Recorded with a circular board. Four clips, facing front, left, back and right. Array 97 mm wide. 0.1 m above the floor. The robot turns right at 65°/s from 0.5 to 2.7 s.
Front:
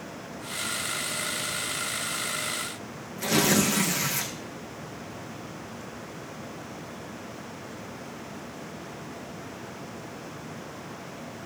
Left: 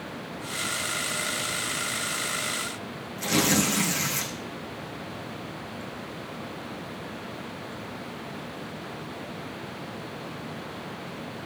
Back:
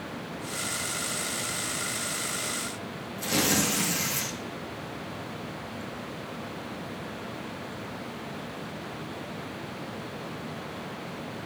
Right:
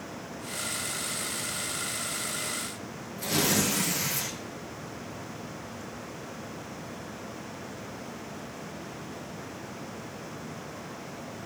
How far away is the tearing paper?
About 4 m.